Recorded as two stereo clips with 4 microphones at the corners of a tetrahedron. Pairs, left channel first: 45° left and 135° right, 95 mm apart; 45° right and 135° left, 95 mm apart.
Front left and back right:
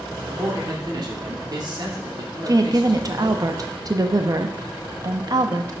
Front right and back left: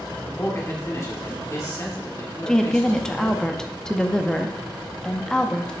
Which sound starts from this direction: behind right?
A woman speaking, at 2.5 s.